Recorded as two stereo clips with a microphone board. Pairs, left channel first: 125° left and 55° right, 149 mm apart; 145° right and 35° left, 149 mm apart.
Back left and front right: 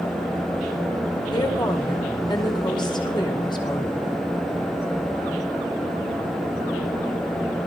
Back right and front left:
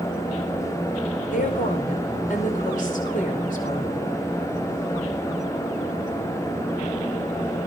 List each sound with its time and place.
1.3 s a woman speaking: 175° right, 4.5 m